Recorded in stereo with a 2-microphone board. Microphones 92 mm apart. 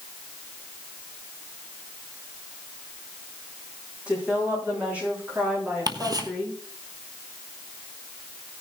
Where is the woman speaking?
15° right (ahead or behind), 9.5 m; by 6.6 s 20° right (ahead or behind), 11 m.